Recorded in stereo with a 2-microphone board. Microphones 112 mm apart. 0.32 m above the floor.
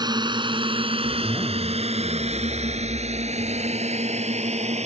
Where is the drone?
40° right (ahead or behind); by 4.9 s 75° right (ahead or behind).